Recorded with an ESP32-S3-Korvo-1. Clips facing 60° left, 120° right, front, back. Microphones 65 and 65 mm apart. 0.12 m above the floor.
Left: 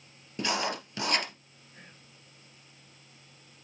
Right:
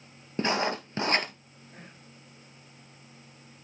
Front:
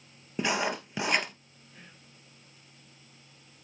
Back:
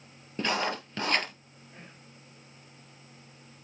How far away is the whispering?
About 4 m.